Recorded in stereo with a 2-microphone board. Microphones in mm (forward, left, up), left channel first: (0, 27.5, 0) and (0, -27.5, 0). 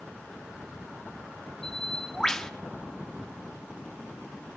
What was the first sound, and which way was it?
A bird, 10° left (ahead or behind).